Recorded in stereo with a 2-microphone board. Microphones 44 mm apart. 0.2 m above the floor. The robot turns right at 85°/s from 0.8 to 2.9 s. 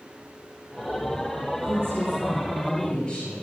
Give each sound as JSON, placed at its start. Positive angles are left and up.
{"t": 1.6, "sound": "a woman speaking", "azimuth_deg": -85, "distance_m": 3.5}